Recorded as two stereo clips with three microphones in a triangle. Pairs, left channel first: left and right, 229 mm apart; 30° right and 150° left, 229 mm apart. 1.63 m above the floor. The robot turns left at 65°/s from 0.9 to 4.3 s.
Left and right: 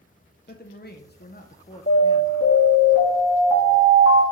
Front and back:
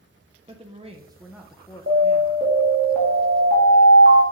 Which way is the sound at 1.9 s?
125° left.